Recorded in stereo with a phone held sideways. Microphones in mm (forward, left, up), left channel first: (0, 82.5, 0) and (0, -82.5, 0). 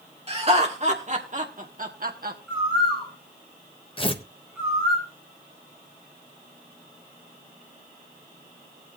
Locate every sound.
0.3 s laughter: 35° right (ahead or behind), 2.5 m; by 2.4 s 65° right (ahead or behind), 1.3 m
2.5 s a bird: centre (ahead or behind), 7.5 m
4.0 s tearing paper: 30° left (ahead or behind), 1.0 m